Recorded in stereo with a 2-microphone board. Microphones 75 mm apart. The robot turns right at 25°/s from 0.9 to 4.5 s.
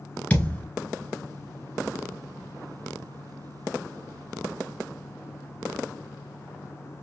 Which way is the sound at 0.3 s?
20° left (ahead or behind).